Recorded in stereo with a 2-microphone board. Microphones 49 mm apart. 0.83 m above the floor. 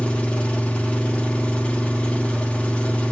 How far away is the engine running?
About 1.1 m.